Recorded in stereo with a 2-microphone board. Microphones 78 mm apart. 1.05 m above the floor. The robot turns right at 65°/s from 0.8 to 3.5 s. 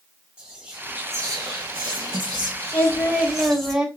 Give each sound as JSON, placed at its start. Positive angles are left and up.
{"t": 0.4, "sound": "whispering", "azimuth_deg": -165, "distance_m": 0.9}
{"t": 2.7, "sound": "singing", "azimuth_deg": 140, "distance_m": 1.6}